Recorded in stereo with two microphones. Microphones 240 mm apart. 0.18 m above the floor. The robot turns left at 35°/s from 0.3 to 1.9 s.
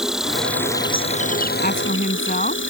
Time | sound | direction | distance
0.0 | an insect | straight behind | ?
1.6 | a woman speaking | 40° left (ahead or behind) | ?